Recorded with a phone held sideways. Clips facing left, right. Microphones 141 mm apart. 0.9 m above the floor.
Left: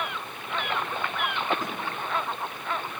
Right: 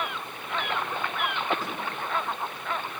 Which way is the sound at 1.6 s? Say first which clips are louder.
Left 1 dB; 15° left (ahead or behind).